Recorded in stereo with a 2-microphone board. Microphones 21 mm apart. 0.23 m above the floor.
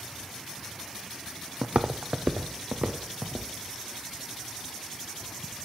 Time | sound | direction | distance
1.6 | footsteps | 60° right (ahead or behind) | 0.5 m